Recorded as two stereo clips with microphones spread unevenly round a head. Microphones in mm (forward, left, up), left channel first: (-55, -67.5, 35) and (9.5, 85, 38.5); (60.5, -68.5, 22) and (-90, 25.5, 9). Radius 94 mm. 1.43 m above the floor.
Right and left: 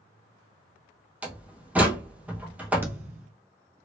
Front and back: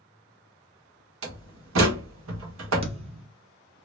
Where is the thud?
125° left, 0.7 m.